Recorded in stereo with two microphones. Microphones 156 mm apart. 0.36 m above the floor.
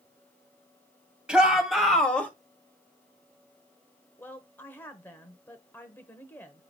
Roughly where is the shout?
Centre.